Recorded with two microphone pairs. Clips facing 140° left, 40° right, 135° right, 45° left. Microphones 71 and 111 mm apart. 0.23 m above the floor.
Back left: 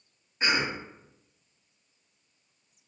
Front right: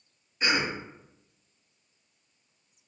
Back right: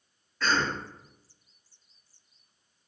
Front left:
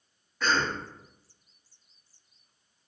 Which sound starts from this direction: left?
A cough, at 0.4 s.